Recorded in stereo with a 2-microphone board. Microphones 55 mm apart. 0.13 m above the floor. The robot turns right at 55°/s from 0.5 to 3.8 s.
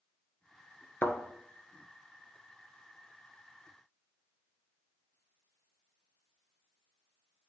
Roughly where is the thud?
Left.